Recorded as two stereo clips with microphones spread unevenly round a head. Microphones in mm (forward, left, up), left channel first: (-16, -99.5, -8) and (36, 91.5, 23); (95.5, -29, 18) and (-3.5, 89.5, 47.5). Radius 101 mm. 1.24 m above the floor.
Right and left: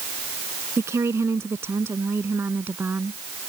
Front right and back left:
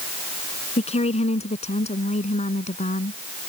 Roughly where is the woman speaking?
Ahead.